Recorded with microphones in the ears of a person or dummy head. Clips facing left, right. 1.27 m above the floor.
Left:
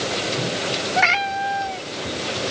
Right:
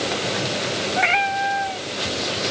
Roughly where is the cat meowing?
Left.